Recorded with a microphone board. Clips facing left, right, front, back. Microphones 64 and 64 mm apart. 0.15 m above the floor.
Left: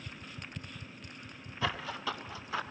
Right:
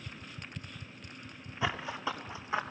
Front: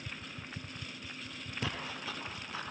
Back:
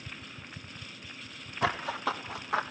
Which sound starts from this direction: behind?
Running footsteps, at 1.6 s.